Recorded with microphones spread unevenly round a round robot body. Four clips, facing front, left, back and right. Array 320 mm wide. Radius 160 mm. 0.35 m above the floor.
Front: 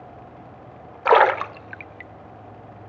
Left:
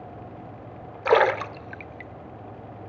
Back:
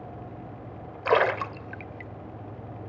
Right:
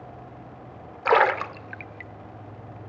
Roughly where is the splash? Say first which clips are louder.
Even, front 7 dB; ahead left.